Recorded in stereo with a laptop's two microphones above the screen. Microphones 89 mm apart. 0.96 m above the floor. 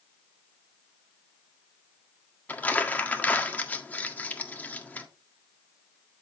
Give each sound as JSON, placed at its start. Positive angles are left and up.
{"t": 2.5, "sound": "crumpling", "side_deg": 20, "distance_m": 1.6}